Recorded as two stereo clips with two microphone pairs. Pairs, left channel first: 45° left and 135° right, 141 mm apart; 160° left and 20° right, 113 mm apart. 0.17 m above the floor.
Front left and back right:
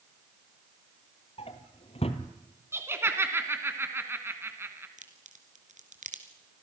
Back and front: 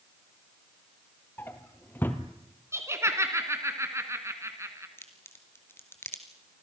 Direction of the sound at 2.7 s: 70° right.